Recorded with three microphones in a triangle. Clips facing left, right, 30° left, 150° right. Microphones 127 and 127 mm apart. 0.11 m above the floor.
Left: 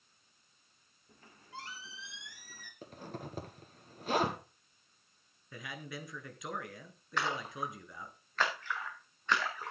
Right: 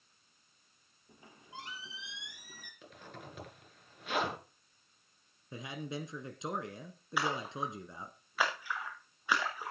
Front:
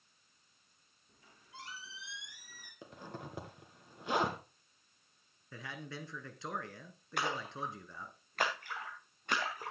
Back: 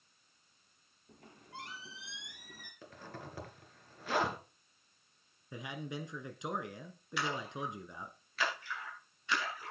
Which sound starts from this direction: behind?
A squeak, at 1.1 s.